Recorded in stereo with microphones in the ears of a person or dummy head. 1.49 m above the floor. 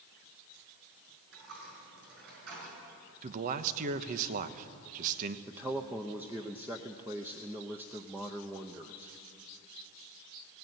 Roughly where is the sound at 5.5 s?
Centre.